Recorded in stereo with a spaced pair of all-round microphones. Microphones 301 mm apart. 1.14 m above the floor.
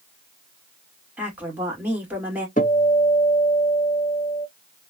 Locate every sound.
1.2 s a woman speaking: 5° right (ahead or behind), 2 m
2.6 s a guitar: 30° left (ahead or behind), 1.3 m